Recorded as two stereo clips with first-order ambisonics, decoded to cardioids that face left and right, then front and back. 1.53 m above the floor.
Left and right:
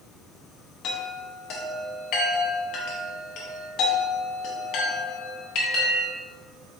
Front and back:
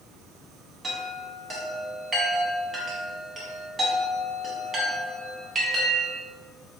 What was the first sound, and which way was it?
A chime, 110° left.